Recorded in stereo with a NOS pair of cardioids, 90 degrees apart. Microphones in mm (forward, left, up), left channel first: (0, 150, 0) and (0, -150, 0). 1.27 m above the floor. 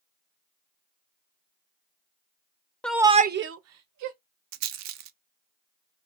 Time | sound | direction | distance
2.8 | a shout | 5° left | 0.6 m
4.5 | a rattle | 70° right | 0.5 m